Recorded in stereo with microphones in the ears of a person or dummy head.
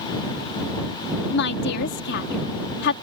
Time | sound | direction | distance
1.3 | a woman speaking | 65° left (ahead or behind) | ?